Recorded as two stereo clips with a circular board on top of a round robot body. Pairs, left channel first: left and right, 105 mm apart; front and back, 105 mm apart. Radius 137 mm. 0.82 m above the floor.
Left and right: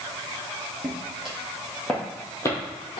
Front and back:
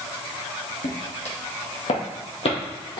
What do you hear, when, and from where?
0.8 s footsteps: 10° right, 2 m; by 3.0 s 45° left, 1.4 m